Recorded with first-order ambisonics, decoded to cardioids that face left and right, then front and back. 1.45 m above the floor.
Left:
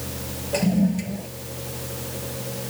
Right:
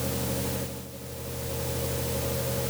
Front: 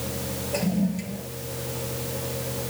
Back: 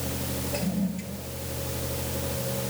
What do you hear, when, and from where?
0.5 s a toilet flushing: 75° left